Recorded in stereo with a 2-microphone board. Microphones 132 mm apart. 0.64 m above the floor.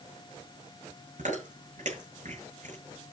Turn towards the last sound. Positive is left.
turn(degrees=-70)  # may be behind; listen again after turning